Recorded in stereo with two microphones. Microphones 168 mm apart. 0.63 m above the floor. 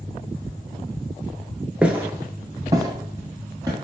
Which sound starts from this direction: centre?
Footsteps, at 1.8 s.